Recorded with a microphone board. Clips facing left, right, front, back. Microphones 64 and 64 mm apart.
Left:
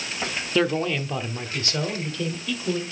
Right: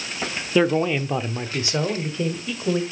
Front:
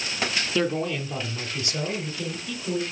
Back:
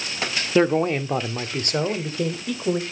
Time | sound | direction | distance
0.6 | a man speaking | 165° right | 0.8 m